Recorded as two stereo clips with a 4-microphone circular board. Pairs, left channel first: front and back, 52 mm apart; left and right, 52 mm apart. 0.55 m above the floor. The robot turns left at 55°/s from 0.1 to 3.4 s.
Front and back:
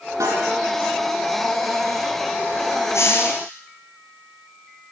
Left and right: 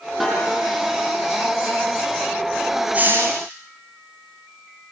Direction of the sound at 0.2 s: Straight behind.